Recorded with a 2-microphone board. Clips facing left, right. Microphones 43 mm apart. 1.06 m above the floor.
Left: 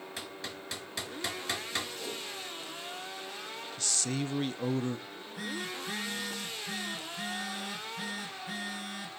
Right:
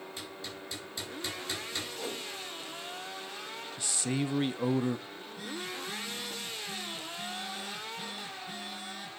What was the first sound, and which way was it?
Hammering, 85° left.